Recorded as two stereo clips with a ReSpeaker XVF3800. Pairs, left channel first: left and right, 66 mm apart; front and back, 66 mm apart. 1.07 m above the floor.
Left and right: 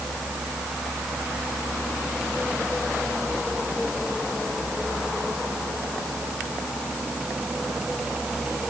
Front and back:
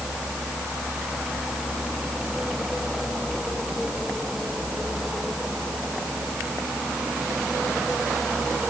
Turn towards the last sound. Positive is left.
No sound to turn to.